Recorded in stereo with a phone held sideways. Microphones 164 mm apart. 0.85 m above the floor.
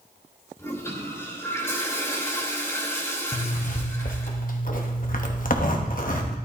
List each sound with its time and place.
0.6 s a toilet flushing: 15° left (ahead or behind), 2.5 m
3.3 s a zipper: 55° left (ahead or behind), 1.2 m